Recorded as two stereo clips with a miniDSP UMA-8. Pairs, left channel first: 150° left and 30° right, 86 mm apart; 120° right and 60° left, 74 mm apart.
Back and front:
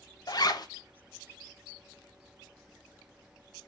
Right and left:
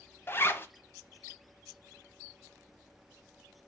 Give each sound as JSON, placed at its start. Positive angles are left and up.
{"t": 0.3, "sound": "a zipper", "azimuth_deg": -175, "distance_m": 0.7}